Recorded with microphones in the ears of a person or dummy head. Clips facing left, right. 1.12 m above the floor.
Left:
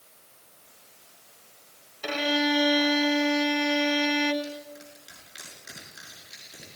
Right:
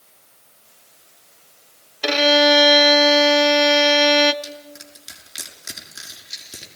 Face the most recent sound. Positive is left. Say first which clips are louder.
# even
turn(degrees=-65)  # may be behind; listen again after turning